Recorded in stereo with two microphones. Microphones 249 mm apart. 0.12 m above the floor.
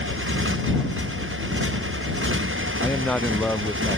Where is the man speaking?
5° left (ahead or behind).